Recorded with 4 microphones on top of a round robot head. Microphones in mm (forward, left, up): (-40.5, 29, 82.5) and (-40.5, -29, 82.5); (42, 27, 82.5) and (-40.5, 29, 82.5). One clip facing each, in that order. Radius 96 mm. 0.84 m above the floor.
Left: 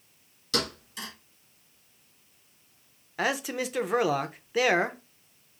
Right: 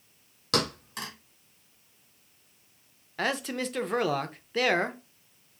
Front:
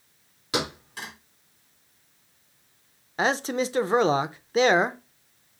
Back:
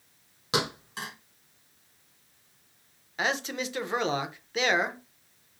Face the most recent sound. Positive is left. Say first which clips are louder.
# left 1 dB, front 6 dB
turn(degrees=15)